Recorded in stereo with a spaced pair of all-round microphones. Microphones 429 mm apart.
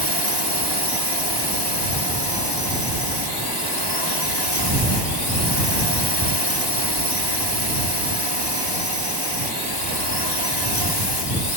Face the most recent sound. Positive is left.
turn(degrees=65)  # may be behind; listen again after turning